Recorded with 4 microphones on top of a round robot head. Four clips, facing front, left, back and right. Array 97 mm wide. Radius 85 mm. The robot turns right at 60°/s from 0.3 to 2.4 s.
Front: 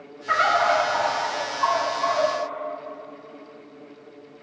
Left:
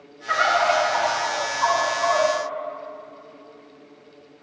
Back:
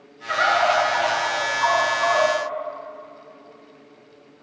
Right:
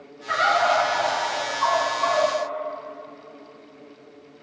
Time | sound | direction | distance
0.3 | a bird | 15° left | 1.8 m